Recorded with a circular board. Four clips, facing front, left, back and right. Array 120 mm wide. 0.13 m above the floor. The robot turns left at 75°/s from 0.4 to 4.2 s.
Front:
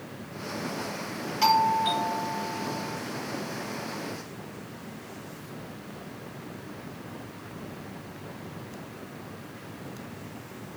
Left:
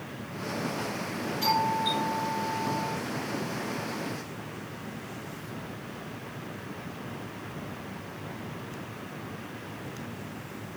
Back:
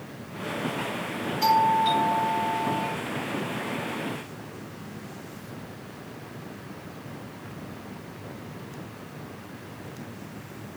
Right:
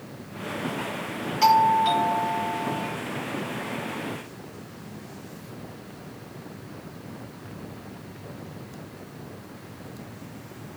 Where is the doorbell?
50° right, 3.5 m; by 3.0 s 165° right, 3.5 m.